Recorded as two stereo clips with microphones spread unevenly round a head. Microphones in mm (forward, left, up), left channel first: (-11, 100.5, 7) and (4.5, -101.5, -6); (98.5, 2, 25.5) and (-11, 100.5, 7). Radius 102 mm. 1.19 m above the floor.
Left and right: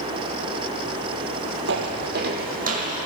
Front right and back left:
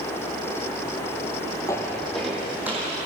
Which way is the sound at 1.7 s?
105° right.